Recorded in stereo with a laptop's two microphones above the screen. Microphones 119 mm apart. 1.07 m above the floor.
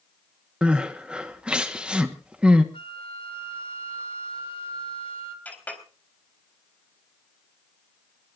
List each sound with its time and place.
0.6 s crying: 10° right (ahead or behind), 1.2 m
2.7 s a flute: 50° left (ahead or behind), 1.9 m
5.5 s a clink: 15° left (ahead or behind), 4 m